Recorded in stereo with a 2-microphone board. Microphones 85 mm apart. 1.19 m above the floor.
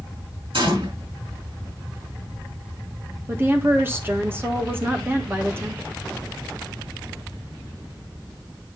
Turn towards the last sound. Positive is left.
turn(degrees=-25)  # may be behind; listen again after turning